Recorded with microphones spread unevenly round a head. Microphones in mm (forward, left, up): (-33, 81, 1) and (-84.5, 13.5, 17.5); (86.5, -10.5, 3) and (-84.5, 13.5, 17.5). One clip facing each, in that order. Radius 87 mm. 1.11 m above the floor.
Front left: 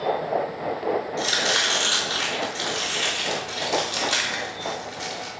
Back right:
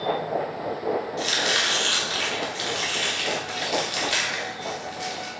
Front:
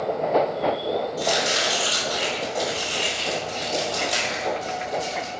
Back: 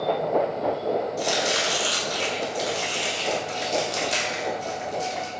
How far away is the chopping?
About 3 m.